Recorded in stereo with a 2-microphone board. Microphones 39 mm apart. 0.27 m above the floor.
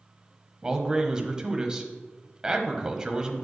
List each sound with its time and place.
0.6 s a man speaking: 20° right (ahead or behind), 1.1 m